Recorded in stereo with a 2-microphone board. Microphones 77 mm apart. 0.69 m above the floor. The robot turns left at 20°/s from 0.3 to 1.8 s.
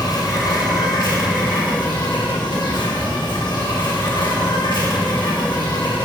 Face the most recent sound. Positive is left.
turn(degrees=85)